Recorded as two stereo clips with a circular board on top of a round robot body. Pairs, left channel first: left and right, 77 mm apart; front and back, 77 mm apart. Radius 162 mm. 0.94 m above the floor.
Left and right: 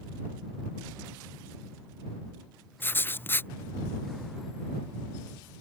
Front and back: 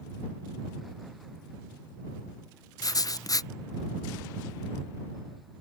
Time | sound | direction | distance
2.8 | writing | 30° left | ?